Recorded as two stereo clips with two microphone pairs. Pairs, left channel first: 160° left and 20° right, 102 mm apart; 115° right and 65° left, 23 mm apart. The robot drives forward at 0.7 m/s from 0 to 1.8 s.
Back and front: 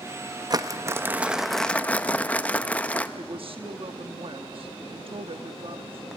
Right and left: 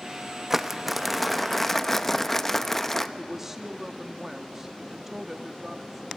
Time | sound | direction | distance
0.5 | crumpling | 5° right | 1.0 m
3.2 | a woman speaking | 10° right | 1.1 m